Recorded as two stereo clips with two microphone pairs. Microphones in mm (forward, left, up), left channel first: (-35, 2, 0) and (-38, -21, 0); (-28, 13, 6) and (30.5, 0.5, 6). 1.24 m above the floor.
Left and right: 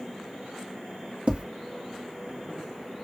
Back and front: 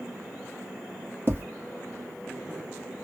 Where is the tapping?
60° right, 0.7 m.